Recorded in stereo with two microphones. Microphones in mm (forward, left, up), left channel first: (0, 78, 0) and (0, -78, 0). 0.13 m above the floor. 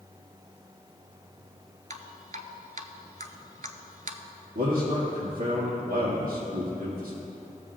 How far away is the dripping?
About 0.6 m.